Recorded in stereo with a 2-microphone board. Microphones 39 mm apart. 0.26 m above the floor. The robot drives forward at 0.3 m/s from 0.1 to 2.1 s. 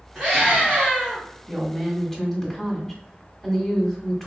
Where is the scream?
15° right (ahead or behind), 1.9 m.